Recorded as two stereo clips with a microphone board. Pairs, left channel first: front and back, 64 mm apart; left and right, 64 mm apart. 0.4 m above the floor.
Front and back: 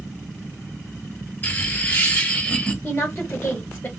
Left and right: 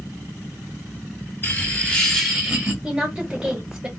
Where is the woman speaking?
25° right, 1.1 m.